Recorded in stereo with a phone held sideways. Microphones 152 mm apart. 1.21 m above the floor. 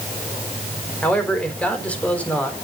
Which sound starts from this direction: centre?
A man speaking, at 1.0 s.